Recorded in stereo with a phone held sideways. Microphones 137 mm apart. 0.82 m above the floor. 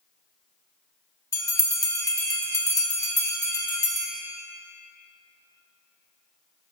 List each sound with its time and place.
1.3 s a bell: 25° left (ahead or behind), 1.1 m